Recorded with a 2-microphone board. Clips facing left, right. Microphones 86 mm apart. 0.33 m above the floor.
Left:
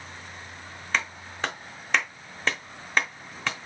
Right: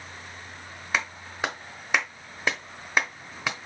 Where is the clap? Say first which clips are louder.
Even; 10° right (ahead or behind), 0.8 m.